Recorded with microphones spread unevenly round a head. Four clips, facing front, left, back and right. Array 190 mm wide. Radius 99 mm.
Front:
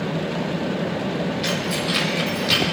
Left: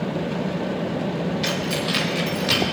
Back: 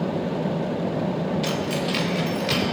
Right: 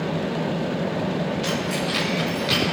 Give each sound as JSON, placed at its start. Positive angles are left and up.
{"t": 1.4, "sound": "keys jangling", "azimuth_deg": 140, "distance_m": 1.3}